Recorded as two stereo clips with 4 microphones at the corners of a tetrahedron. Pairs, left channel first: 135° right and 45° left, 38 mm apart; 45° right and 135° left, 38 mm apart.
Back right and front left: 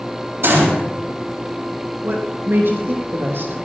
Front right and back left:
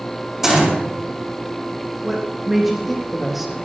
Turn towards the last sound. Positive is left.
turn(degrees=50)